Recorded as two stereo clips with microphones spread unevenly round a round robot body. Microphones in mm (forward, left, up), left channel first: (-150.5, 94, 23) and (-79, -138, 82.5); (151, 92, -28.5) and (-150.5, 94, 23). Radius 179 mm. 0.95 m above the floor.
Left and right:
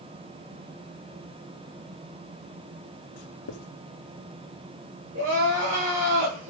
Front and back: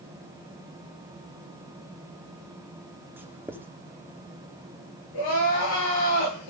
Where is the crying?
20° right, 9 m.